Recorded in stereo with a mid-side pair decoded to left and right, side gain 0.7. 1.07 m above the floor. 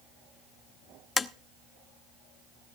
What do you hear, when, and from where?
1.2 s tapping: 20° left, 0.8 m